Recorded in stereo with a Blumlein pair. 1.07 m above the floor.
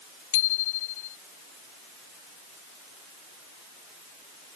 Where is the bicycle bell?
55° left.